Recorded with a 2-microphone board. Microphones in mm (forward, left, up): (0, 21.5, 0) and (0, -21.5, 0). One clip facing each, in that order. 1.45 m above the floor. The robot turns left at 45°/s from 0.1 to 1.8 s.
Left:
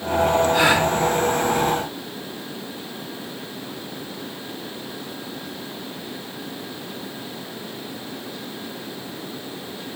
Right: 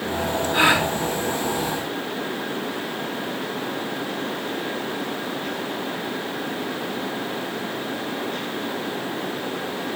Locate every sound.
0.5 s a gasp: 30° right (ahead or behind), 3.5 m; by 0.9 s 15° right (ahead or behind), 3.5 m